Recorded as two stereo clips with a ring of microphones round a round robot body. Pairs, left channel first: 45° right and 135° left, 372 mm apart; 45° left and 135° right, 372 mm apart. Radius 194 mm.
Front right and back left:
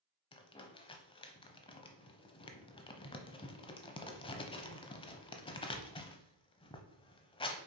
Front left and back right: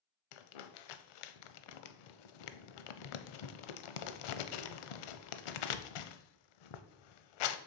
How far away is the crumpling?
About 0.6 m.